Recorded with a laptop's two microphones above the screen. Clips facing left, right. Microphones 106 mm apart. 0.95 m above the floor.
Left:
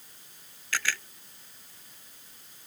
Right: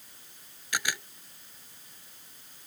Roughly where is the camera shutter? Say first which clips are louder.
Even; centre.